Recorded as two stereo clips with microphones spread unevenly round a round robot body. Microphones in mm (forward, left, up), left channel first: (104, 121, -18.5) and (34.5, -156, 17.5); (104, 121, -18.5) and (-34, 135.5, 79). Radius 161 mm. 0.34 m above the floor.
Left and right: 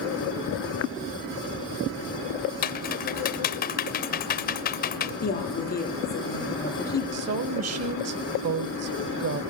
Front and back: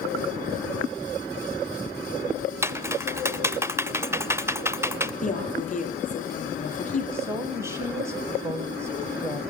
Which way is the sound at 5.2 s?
20° left.